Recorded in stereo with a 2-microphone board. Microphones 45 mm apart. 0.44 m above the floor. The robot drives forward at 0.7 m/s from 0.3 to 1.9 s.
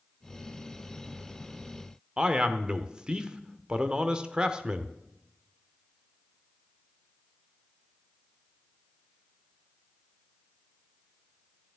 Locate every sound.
2.2 s a man speaking: 20° right (ahead or behind), 0.9 m